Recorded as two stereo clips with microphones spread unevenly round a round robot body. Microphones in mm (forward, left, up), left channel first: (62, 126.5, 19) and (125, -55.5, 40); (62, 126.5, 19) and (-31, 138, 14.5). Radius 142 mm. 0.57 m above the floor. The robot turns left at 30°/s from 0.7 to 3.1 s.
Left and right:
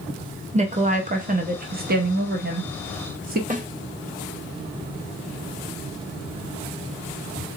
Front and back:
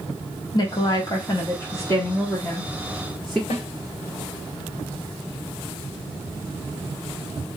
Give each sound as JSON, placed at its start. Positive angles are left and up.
{"t": 0.5, "sound": "a woman speaking", "azimuth_deg": -25, "distance_m": 1.1}
{"t": 3.5, "sound": "a snare drum", "azimuth_deg": -15, "distance_m": 1.3}